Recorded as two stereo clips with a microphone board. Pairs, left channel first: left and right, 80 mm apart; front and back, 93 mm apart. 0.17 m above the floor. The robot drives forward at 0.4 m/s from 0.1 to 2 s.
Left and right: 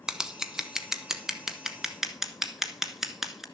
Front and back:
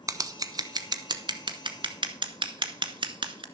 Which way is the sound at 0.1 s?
165° right.